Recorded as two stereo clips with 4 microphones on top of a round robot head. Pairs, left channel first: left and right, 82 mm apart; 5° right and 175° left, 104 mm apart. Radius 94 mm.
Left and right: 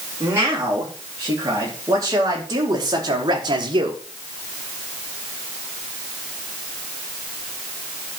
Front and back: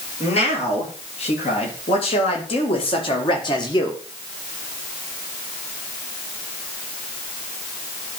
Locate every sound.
0.2 s a man speaking: 25° right, 3.5 m; by 4.0 s 60° right, 1.4 m